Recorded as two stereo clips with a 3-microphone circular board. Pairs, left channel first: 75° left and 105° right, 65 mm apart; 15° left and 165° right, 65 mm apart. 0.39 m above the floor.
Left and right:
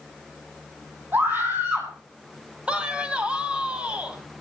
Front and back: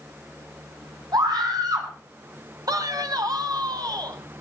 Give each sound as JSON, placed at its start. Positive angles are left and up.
{"t": 1.1, "sound": "a scream", "azimuth_deg": -160, "distance_m": 4.0}
{"t": 2.7, "sound": "a man speaking", "azimuth_deg": -175, "distance_m": 2.5}